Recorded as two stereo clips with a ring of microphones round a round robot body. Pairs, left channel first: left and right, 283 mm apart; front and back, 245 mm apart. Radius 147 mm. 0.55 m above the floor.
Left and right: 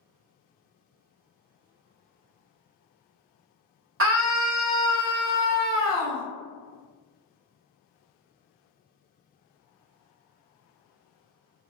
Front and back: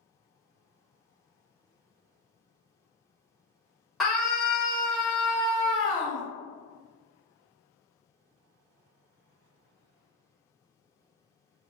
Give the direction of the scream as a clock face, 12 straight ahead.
3 o'clock.